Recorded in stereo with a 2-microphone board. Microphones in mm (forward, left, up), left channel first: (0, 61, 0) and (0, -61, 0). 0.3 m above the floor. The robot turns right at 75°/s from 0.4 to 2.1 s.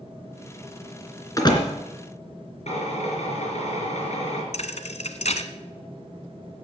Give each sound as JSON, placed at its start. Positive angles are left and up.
{"t": 1.4, "sound": "a door slam", "side_deg": 25, "distance_m": 2.5}
{"t": 2.7, "sound": "a drill", "side_deg": 65, "distance_m": 4.5}
{"t": 4.5, "sound": "a thud", "side_deg": 65, "distance_m": 1.2}